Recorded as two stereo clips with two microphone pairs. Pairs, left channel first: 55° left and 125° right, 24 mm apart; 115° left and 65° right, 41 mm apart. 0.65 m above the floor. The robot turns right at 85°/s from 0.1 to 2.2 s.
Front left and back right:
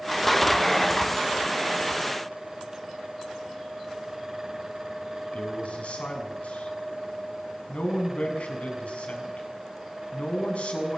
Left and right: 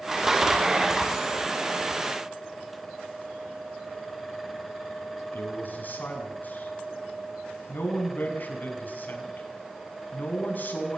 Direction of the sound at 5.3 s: 75° left.